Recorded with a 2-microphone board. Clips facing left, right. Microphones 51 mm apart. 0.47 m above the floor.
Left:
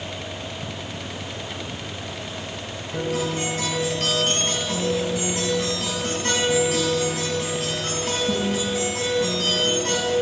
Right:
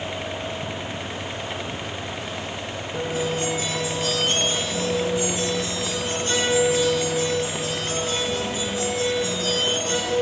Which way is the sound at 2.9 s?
65° left (ahead or behind).